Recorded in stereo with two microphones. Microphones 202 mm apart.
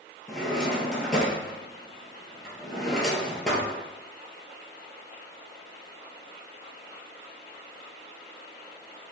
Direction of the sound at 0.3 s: 5° left (ahead or behind).